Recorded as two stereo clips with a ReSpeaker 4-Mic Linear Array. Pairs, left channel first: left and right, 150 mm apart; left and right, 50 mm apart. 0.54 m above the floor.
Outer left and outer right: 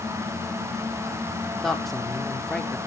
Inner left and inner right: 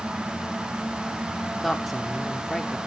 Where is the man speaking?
Centre (ahead or behind), 1.4 m.